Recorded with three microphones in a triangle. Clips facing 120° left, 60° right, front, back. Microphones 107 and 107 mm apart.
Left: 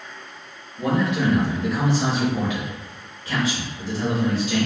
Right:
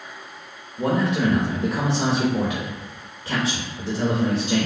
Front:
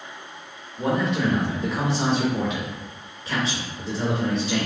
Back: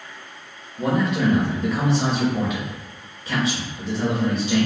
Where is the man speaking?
95° right, 1.0 m.